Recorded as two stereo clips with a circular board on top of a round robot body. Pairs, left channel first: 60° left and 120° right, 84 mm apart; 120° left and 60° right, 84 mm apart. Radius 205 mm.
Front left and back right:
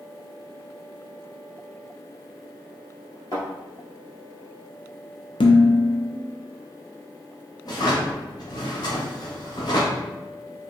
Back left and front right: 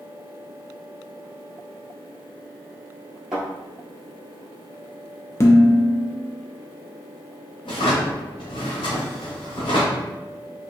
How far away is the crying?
I don't hear crying.